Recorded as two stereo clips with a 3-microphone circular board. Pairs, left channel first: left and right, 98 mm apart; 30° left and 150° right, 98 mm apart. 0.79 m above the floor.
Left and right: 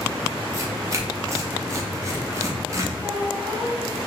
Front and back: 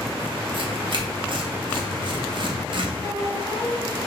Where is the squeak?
10° right, 1.9 m.